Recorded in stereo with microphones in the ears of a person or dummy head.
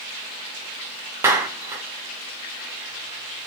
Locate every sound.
1.2 s a clap: 15° right (ahead or behind), 0.5 m